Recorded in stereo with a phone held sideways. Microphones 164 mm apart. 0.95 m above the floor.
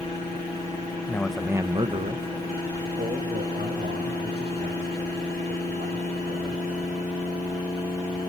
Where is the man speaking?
20° left (ahead or behind), 0.6 m; by 6.7 s 80° right, 4 m.